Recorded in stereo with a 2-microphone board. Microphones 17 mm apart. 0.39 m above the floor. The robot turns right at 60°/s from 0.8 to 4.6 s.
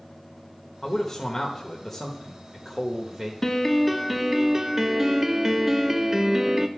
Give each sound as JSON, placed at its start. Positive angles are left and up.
{"t": 0.8, "sound": "a man speaking", "side_deg": 30, "distance_m": 0.9}
{"t": 3.4, "sound": "a piano", "azimuth_deg": 145, "distance_m": 0.6}